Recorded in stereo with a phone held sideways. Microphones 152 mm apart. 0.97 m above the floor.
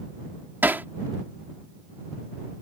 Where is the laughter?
I don't hear laughter.